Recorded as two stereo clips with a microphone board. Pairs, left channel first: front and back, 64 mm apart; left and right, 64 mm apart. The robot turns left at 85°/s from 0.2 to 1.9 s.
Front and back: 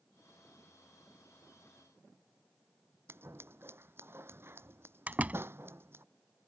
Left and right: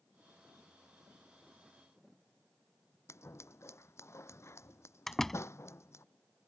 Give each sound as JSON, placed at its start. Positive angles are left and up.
{"t": 3.1, "sound": "scissors", "azimuth_deg": 130}
{"t": 5.1, "sound": "a door slam", "azimuth_deg": 170}